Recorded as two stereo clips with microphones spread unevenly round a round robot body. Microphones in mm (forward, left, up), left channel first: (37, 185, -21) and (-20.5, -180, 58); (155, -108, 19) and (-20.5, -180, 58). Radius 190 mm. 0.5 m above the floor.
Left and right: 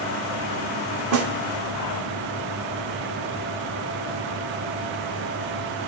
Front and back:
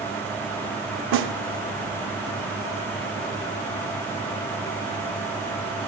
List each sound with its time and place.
1.1 s a snare drum: 155° right, 0.6 m